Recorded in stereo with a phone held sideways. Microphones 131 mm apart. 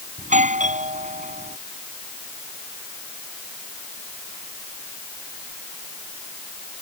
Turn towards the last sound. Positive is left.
turn(degrees=-70)  # may be behind; listen again after turning